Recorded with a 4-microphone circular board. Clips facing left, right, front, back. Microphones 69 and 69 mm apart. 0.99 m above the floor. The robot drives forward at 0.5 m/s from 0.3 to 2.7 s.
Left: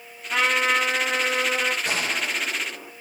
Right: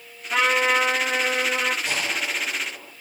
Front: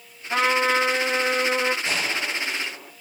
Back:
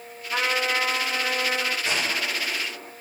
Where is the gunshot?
105° left, 5 m; by 2.9 s 110° left, 5 m.